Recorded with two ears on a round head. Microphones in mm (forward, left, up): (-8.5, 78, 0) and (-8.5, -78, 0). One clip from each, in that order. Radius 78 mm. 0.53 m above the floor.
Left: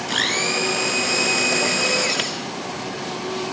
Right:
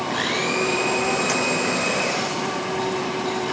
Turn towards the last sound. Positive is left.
turn(degrees=85)